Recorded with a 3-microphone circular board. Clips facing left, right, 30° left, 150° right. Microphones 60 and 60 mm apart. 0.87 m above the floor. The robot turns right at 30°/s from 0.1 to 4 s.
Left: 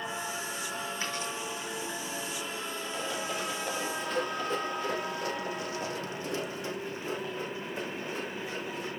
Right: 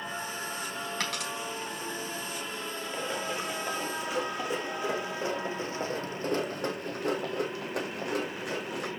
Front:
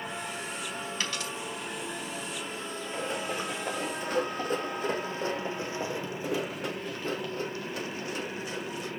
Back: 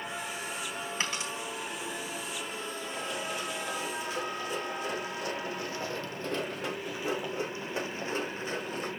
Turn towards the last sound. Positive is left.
turn(degrees=-105)